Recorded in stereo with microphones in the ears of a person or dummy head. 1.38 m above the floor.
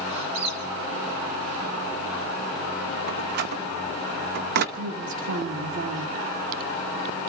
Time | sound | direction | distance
0.1 | a squeak | 35° right (ahead or behind) | 4 m
3.1 | a door slam | 55° right (ahead or behind) | 1.0 m
4.8 | a woman speaking | 65° right (ahead or behind) | 1.8 m